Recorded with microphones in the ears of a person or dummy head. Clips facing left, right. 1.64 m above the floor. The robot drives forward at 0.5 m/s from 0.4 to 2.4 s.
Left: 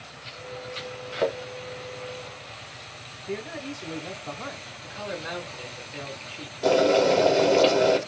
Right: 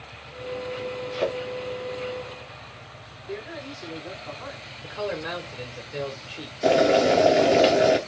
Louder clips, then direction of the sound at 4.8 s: Right 5 dB; 60° right (ahead or behind).